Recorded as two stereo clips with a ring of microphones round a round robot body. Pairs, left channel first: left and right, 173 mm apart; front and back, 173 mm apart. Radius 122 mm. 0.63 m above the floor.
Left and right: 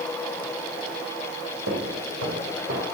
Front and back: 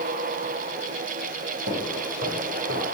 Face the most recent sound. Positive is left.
turn(degrees=-135)